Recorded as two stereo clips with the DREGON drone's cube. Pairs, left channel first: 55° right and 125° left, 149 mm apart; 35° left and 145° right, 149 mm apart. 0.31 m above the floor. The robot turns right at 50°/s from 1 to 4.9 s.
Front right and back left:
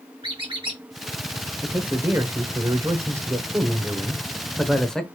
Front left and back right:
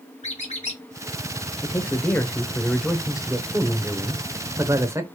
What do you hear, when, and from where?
0.2 s a squeak: 75° left, 1.9 m
1.6 s a man speaking: 65° left, 0.8 m; by 5.1 s 135° right, 0.8 m